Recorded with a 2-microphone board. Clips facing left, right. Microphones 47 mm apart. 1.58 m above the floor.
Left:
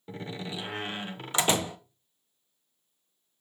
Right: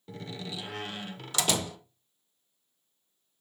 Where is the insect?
No insect in this recording.